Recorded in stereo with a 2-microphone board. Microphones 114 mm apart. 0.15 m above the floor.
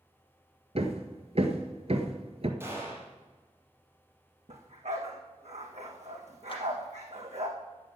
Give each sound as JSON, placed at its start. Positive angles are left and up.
{"t": 0.8, "sound": "hammering", "side_deg": -60, "distance_m": 1.6}
{"t": 2.6, "sound": "a gunshot", "side_deg": -20, "distance_m": 5.0}
{"t": 4.5, "sound": "a dog barking", "side_deg": -75, "distance_m": 3.0}
{"t": 6.5, "sound": "a clap", "side_deg": 45, "distance_m": 4.0}